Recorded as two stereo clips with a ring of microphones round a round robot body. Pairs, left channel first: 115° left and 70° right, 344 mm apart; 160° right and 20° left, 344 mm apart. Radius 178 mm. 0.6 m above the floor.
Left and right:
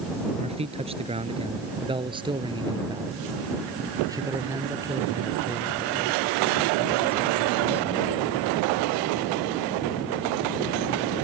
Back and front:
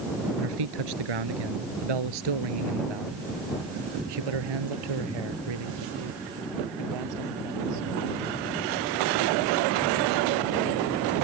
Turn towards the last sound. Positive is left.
turn(degrees=20)